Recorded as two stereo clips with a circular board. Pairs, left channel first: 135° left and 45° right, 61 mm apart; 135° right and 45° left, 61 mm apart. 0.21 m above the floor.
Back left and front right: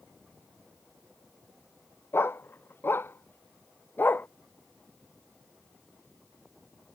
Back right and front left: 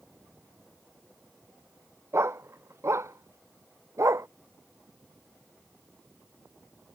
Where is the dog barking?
85° left; by 4.3 s 75° left.